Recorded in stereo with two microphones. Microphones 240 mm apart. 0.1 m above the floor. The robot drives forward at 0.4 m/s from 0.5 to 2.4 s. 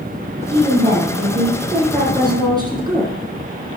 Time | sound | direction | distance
0.5 | a woman speaking | 20° right (ahead or behind) | 4.5 m